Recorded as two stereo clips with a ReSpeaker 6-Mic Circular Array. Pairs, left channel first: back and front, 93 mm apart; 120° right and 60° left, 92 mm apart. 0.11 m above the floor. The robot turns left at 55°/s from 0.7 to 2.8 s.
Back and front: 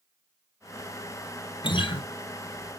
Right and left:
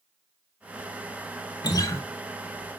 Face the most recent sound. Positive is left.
turn(degrees=140)